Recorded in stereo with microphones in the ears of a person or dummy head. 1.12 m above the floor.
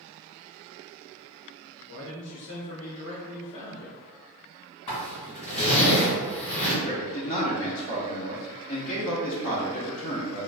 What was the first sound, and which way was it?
A man speaking, 75° left (ahead or behind).